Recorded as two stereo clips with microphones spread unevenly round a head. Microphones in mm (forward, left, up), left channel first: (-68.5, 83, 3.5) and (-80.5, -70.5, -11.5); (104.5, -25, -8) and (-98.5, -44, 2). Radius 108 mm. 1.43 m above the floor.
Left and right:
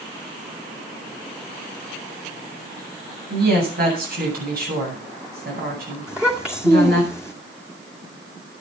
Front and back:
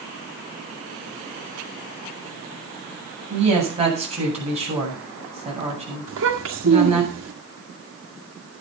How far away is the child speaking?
About 1.9 m.